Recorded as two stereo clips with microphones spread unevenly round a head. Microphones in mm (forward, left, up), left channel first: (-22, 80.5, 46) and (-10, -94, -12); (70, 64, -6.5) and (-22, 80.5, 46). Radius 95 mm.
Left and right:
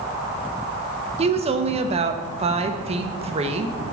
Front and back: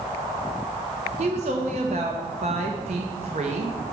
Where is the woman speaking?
135° right, 0.7 m.